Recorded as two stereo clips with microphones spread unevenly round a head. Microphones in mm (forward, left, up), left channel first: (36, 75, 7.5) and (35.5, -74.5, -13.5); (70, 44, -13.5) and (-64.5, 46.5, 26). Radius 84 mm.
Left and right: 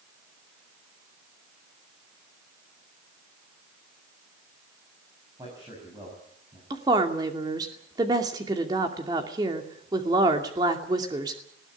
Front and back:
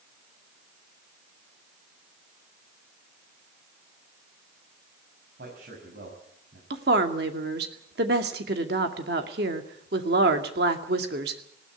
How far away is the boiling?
No boiling in this recording.